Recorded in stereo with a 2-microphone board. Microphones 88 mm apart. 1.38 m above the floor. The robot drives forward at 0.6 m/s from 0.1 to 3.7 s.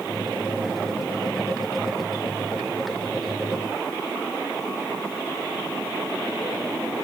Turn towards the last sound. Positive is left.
No sound to turn to.